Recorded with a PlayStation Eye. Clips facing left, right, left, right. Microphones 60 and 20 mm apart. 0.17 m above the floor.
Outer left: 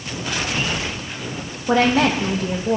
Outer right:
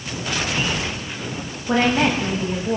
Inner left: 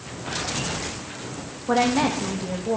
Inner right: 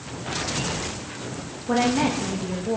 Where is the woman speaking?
65° left (ahead or behind), 7 m.